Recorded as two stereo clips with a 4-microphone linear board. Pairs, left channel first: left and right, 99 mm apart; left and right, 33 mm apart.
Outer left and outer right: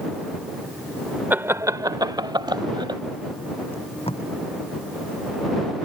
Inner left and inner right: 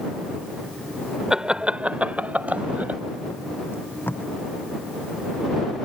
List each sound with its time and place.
1.3 s laughter: 20° right (ahead or behind); by 3.0 s 50° right (ahead or behind)
3.7 s tape being pulled: 80° left